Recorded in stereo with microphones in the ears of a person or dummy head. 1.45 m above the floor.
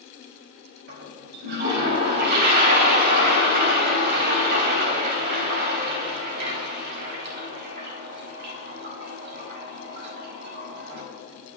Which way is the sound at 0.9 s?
60° right (ahead or behind).